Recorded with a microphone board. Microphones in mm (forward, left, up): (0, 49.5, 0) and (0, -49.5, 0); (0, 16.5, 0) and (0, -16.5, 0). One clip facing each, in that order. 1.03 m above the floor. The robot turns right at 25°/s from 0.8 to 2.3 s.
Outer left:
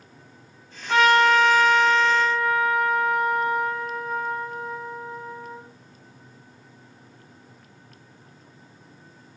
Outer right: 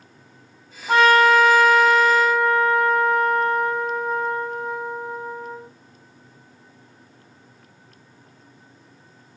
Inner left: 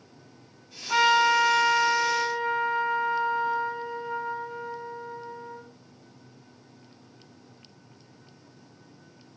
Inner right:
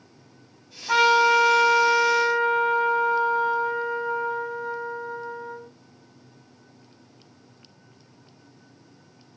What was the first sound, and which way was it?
A trumpet, 120° right.